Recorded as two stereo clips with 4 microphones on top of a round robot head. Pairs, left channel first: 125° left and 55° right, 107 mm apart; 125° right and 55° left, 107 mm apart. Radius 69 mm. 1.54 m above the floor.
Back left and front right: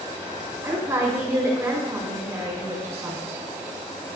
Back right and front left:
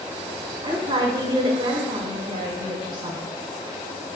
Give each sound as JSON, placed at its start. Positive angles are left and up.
{"t": 0.6, "sound": "a woman speaking", "azimuth_deg": 10, "distance_m": 5.5}